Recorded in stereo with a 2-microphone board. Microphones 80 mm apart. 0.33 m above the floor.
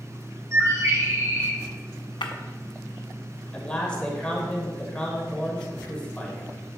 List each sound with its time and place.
0.5 s a bird: 40° right (ahead or behind), 1.6 m
2.2 s breaking glass: 80° left, 0.8 m
3.5 s a man speaking: 10° left (ahead or behind), 1.4 m